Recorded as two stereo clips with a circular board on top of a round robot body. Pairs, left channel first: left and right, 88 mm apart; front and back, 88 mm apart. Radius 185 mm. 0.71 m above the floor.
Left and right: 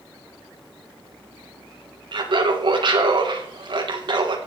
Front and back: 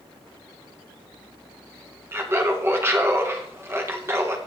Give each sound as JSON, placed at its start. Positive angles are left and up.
{"t": 2.1, "sound": "laughter", "azimuth_deg": -120, "distance_m": 3.0}